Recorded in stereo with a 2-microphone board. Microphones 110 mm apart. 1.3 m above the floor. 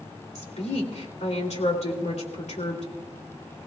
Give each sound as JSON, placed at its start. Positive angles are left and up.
{"t": 0.3, "sound": "a woman speaking", "side_deg": 85, "distance_m": 2.5}